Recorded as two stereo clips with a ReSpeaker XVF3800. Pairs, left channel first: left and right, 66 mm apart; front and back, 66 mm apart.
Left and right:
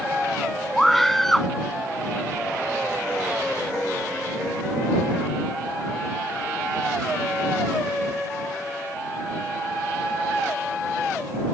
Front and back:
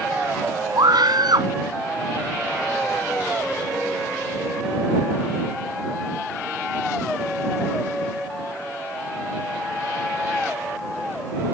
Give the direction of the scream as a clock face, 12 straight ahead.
6 o'clock.